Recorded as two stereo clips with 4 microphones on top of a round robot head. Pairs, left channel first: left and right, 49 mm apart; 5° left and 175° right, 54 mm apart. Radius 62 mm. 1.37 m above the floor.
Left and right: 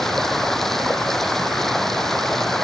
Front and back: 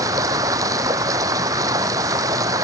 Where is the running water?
175° left.